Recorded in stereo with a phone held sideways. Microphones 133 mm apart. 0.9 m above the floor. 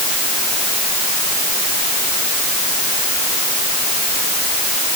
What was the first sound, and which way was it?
Only background noise.